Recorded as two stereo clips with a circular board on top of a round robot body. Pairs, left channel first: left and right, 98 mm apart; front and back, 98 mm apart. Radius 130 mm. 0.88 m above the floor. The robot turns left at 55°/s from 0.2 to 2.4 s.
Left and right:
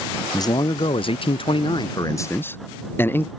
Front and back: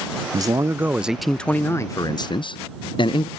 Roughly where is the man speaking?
Behind left.